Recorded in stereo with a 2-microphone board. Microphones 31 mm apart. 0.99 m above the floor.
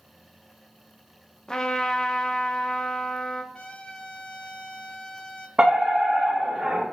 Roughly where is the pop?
I don't hear a pop.